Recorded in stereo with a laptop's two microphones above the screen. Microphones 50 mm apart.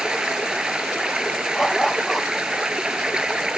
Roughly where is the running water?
Centre.